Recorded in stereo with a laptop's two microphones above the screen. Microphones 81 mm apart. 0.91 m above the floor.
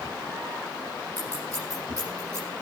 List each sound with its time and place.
1.2 s scissors: 45° right (ahead or behind), 9 m